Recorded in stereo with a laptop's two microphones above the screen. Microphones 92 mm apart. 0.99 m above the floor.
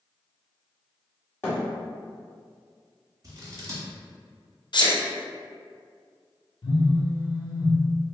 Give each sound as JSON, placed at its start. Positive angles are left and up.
{"t": 1.4, "sound": "a thud", "side_deg": 25, "distance_m": 1.6}
{"t": 3.2, "sound": "scissors", "side_deg": -40, "distance_m": 1.3}
{"t": 4.7, "sound": "a sneeze", "side_deg": 55, "distance_m": 0.7}
{"t": 6.6, "sound": "a phone buzzing", "side_deg": 70, "distance_m": 0.5}